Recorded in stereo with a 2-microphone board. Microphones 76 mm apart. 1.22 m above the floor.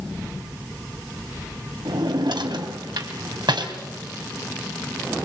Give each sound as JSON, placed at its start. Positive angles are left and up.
{"t": 1.9, "sound": "a drawer", "side_deg": -70, "distance_m": 2.5}